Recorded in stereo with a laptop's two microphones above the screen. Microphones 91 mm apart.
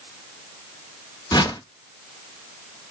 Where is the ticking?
No ticking in this recording.